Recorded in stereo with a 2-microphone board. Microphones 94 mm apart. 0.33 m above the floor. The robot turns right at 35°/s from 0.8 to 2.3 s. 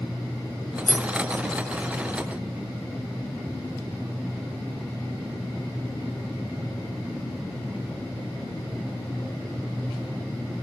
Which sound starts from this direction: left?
Keys jangling, at 0.9 s.